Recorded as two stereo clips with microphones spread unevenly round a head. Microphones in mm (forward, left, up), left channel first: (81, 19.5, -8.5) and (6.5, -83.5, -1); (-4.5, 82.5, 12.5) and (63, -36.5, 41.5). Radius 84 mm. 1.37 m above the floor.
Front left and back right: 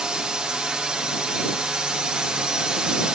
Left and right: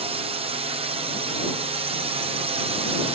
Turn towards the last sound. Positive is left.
turn(degrees=-45)